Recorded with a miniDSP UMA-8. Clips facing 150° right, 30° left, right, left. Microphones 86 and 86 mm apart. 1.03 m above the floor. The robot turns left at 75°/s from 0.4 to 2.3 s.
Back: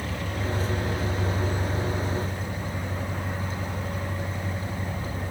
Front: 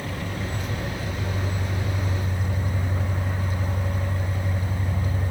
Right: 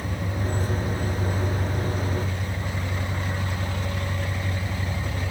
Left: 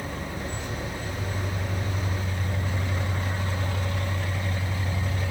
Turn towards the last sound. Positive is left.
turn(degrees=110)